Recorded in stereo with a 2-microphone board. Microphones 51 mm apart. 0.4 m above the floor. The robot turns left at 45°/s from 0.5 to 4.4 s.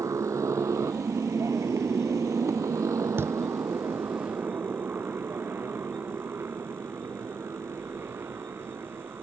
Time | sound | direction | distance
0.0 | a motorcycle | 90° right | ?
3.2 | a thud | 50° right (ahead or behind) | ?